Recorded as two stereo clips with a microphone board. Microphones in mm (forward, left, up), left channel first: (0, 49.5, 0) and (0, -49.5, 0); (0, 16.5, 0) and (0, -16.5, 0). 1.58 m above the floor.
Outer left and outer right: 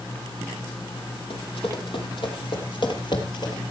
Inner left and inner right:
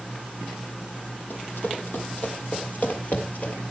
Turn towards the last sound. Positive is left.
turn(degrees=45)  # may be behind; listen again after turning